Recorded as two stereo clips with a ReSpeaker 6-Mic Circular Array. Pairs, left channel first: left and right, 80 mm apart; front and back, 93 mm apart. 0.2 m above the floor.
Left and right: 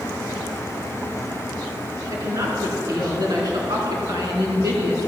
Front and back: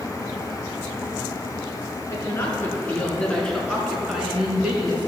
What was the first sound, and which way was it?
A woman speaking, 50° right.